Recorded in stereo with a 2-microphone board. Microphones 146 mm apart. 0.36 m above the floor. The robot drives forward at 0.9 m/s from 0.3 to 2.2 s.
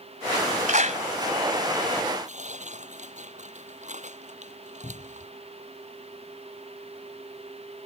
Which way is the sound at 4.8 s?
45° left (ahead or behind).